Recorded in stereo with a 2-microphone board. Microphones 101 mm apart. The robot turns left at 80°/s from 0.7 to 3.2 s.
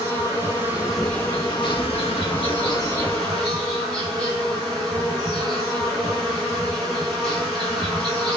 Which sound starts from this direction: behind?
An insect, at 0.0 s.